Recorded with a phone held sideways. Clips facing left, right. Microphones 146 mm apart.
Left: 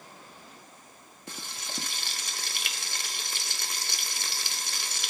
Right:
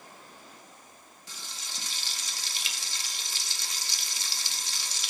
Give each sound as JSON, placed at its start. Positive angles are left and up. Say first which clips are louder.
{"t": 1.3, "sound": "frying", "louder": "left 6 dB", "side_deg": 60, "distance_m": 0.6}